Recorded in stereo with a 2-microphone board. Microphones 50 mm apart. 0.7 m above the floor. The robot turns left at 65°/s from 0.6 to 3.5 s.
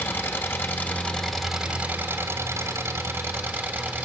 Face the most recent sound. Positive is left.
turn(degrees=-135)